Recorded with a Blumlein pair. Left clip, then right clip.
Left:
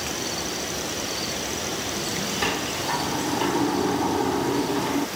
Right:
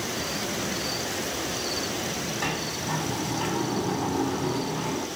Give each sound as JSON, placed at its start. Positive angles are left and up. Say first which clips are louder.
{"t": 2.4, "sound": "a sliding door", "louder": "left 5 dB", "azimuth_deg": 20, "distance_m": 2.0}